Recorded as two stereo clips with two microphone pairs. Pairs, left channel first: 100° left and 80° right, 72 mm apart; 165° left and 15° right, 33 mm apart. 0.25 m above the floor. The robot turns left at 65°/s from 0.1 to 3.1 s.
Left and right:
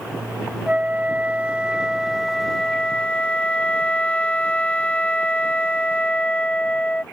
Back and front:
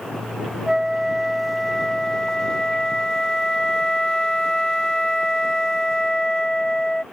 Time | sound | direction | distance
0.7 | a flute | 65° right | ?